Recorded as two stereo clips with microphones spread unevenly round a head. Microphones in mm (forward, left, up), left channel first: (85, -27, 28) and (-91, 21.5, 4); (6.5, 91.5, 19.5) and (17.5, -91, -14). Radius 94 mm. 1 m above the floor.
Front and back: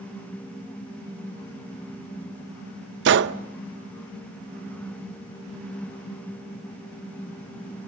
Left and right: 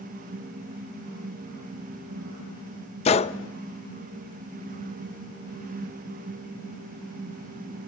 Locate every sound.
3.0 s a gunshot: 155° left, 0.7 m